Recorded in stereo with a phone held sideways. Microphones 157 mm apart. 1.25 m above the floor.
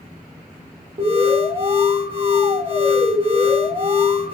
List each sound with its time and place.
1.0 s an alarm: 40° right (ahead or behind), 1.9 m